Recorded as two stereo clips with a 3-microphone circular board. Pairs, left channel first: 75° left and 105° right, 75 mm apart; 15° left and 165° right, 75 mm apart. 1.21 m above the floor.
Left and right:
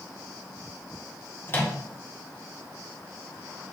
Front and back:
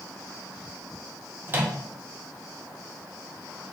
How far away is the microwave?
About 0.7 m.